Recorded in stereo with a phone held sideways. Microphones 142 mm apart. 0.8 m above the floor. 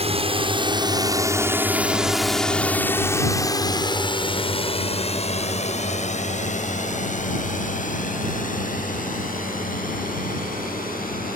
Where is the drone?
40° right (ahead or behind); by 11.4 s 65° left (ahead or behind).